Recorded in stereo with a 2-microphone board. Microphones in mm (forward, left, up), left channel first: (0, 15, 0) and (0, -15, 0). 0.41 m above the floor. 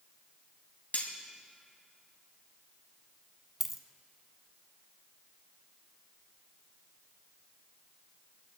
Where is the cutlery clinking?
60° left (ahead or behind), 1.5 m.